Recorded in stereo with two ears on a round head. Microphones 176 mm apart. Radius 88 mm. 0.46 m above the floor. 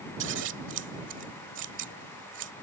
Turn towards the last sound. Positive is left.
turn(degrees=-65)  # may be behind; listen again after turning